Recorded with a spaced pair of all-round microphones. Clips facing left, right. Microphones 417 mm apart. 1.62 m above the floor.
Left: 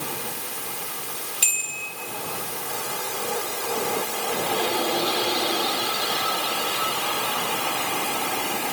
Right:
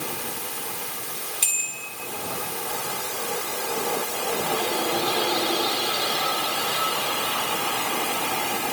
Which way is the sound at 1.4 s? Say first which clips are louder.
Left 1 dB; 25° left (ahead or behind).